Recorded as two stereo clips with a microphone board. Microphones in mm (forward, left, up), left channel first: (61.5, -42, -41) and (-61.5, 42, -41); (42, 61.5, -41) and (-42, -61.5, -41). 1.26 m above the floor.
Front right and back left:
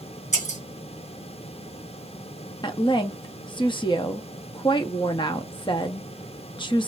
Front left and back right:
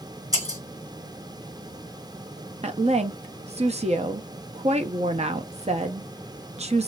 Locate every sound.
0.3 s breaking glass: 60° right, 2.5 m
2.6 s a woman speaking: 85° right, 0.6 m